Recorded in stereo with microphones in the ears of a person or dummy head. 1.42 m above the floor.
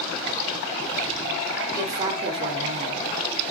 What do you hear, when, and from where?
1.7 s a woman speaking: 15° right (ahead or behind), 1.3 m; by 3.4 s 75° right (ahead or behind), 1.1 m